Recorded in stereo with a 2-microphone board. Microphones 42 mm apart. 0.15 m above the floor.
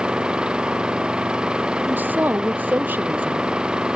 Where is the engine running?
20° right (ahead or behind).